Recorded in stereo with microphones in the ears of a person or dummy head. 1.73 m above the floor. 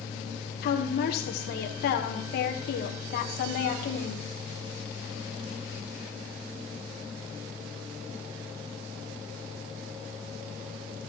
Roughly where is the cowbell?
No cowbell in this recording.